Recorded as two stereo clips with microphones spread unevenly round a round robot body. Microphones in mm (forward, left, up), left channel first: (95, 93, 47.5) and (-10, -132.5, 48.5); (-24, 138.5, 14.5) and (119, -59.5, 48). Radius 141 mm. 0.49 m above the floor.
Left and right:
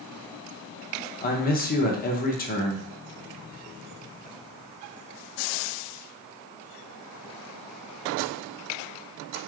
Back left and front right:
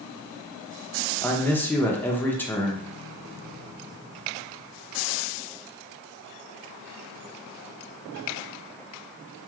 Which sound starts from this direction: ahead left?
A man speaking, at 1.2 s.